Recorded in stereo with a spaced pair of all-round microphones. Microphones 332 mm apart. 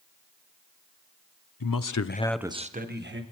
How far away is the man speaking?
About 0.8 m.